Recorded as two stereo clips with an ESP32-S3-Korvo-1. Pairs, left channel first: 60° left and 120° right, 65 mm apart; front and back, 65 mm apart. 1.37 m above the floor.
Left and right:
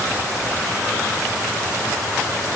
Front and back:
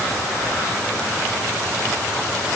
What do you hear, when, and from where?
Only background noise.